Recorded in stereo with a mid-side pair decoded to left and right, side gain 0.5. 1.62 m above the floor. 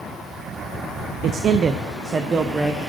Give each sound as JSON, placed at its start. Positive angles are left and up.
{"t": 1.2, "sound": "a man speaking", "azimuth_deg": -65, "distance_m": 0.6}